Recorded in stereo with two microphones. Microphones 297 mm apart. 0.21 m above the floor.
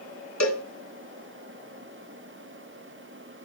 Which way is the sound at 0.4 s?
60° left (ahead or behind).